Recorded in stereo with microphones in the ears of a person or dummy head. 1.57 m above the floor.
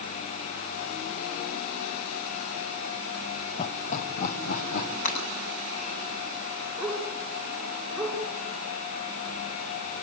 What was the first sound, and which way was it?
Laughter, 35° left (ahead or behind).